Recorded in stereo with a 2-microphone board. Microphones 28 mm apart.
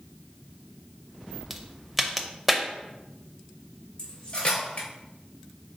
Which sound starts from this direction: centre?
A crack, at 1.5 s.